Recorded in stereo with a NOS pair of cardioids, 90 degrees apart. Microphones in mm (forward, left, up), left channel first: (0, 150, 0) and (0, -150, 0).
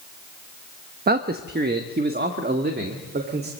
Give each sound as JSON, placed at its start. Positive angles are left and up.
{"t": 1.1, "sound": "a man speaking", "azimuth_deg": -30, "distance_m": 0.9}